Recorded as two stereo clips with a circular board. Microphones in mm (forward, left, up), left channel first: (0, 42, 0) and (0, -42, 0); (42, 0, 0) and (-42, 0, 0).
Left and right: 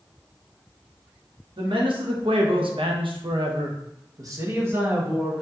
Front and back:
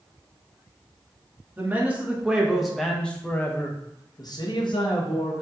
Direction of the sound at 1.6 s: 110° right.